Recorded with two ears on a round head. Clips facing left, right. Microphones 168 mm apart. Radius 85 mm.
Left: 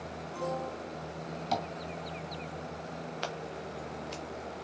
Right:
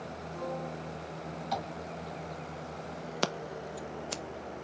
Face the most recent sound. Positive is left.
turn(degrees=-60)  # may be behind; listen again after turning